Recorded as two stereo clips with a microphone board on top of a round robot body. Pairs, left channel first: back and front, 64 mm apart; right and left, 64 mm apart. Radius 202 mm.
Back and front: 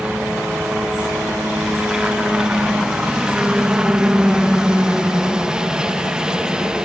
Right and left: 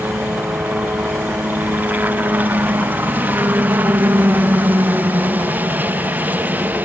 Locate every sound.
0.0 s a helicopter: 70° left